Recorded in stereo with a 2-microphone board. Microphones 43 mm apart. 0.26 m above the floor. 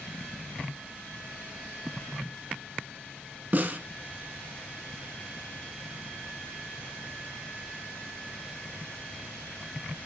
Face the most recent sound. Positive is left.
turn(degrees=-40)  # may be behind; listen again after turning